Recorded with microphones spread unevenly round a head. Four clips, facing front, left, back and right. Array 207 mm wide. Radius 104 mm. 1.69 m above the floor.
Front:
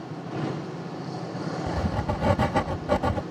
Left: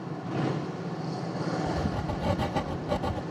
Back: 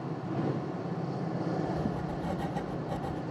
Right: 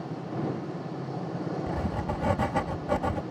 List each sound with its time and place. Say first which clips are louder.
1.7 s writing: left 1 dB, front 4 dB; straight ahead